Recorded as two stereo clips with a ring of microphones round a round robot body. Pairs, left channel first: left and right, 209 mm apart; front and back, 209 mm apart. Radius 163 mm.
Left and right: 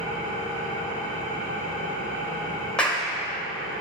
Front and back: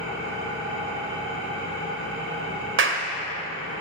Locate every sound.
0.0 s an engine running: 165° left, 4.5 m
2.8 s a clap: 175° left, 1.5 m